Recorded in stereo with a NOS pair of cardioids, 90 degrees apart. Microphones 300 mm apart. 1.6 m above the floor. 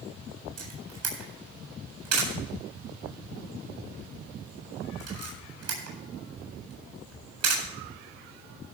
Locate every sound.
0.6 s a camera shutter: 55° right, 8 m